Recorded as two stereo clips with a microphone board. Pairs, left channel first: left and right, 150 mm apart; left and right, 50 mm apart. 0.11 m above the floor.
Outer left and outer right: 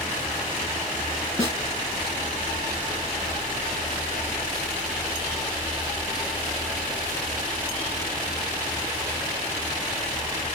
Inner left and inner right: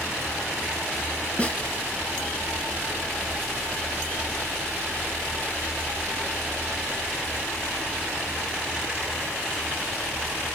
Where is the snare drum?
20° left (ahead or behind), 1.3 m.